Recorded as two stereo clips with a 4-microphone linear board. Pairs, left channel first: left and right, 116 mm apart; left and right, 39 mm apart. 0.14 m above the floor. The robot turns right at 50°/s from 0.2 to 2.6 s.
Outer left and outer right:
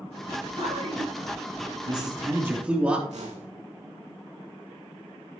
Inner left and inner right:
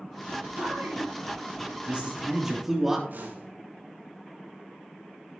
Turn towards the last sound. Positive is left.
turn(degrees=-70)  # may be behind; listen again after turning